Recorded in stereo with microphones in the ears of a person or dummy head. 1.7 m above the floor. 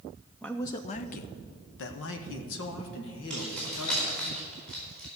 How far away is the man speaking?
About 0.6 m.